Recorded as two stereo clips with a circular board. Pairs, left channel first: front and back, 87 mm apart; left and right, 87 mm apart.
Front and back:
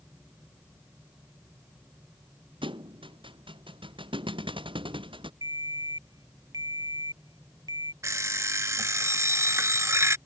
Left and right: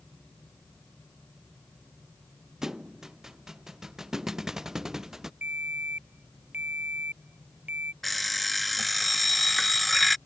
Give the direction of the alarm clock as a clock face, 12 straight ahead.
6 o'clock.